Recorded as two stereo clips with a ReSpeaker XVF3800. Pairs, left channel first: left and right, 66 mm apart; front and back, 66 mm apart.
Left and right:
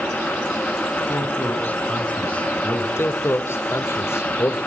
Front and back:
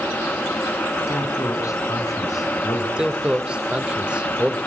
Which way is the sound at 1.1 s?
35° left.